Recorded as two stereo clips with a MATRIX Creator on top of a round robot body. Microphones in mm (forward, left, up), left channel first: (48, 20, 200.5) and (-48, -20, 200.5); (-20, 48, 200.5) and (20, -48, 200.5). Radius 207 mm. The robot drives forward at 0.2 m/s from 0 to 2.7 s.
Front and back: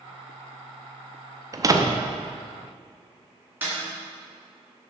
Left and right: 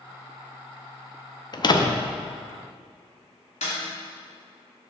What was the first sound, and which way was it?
A door slam, 150° left.